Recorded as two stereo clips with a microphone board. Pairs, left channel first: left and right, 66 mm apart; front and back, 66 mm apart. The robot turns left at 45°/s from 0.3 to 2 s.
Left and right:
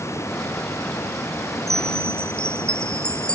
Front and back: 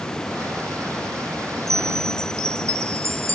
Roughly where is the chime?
Behind.